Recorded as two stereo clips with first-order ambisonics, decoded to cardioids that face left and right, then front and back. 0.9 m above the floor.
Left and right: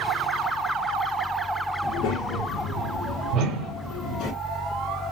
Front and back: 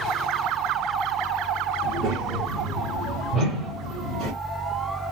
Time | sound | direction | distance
1.8 | a child speaking | 135° left | 1.4 m
3.3 | a whoosh | 130° right | 1.2 m